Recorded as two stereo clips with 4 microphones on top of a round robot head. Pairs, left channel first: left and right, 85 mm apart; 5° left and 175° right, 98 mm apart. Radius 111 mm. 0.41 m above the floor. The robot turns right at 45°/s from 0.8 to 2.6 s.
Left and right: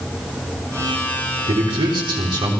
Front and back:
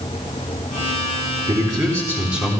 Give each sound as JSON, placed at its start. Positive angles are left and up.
{"t": 1.5, "sound": "a man speaking", "azimuth_deg": -135, "distance_m": 4.0}